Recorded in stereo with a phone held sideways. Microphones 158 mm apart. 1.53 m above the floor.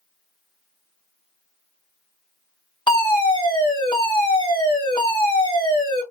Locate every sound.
2.9 s a fire alarm: 30° left (ahead or behind), 1.8 m